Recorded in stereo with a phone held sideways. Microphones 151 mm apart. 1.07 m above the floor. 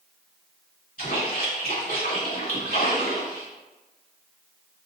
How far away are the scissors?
No scissors in this recording.